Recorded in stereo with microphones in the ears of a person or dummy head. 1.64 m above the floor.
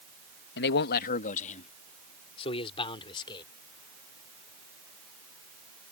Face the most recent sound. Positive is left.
turn(degrees=25)  # may be behind; listen again after turning